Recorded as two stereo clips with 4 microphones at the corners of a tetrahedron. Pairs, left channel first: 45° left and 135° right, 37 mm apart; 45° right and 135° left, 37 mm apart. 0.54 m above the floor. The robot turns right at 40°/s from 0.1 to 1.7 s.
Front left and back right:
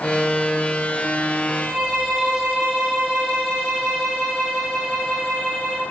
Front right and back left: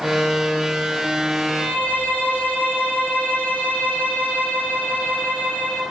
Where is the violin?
40° right, 1.9 m; by 5.8 s 30° right, 1.9 m.